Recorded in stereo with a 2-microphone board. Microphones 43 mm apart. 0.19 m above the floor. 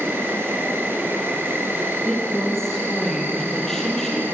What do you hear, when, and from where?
0.0 s an insect: 65° right (ahead or behind), 4.5 m
2.0 s a woman speaking: 10° left (ahead or behind), 7 m